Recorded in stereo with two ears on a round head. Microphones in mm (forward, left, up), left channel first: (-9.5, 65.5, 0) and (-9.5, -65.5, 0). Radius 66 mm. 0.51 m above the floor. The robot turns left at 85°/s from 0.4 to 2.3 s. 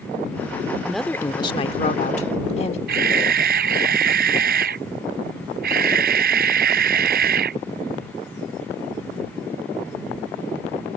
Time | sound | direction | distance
0.8 | a woman speaking | 175° right | ?
2.9 | a camera shutter | 75° right (ahead or behind) | ?